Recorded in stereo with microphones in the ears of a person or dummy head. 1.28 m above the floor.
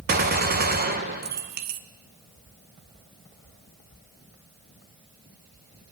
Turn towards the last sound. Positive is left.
turn(degrees=-45)  # may be behind; listen again after turning